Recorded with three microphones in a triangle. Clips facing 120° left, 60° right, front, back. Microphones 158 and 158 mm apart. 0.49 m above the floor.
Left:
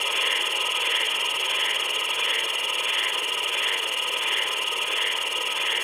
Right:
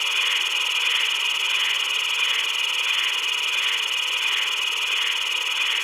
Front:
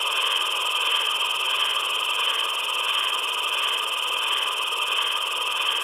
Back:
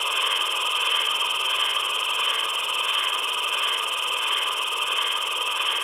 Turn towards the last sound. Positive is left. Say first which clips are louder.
# left 4 dB, even
turn(degrees=90)